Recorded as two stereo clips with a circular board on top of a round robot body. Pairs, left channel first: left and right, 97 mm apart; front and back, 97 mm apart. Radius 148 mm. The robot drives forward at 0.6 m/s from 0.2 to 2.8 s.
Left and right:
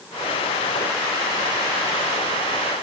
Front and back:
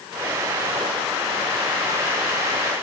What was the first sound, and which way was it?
Only background noise.